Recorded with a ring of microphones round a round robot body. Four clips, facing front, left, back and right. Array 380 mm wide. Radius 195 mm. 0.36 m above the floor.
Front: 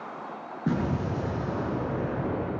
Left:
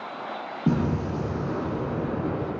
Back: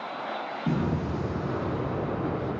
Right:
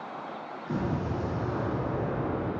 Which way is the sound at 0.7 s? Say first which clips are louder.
Left 6 dB, front 1 dB; 80° left.